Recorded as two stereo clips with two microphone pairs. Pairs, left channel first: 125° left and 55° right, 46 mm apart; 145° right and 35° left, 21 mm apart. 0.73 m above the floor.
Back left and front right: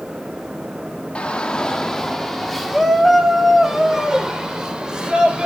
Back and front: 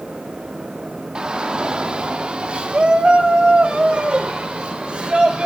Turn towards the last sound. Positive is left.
turn(degrees=15)